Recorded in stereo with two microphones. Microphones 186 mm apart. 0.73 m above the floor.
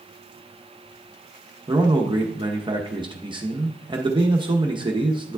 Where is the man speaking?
25° right (ahead or behind), 0.9 m.